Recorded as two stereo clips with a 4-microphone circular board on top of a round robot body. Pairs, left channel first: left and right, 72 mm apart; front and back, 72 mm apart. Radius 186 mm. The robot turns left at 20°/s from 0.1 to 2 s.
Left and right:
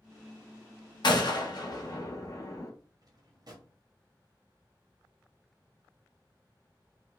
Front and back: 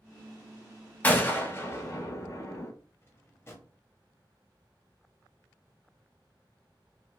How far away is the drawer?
About 1.0 m.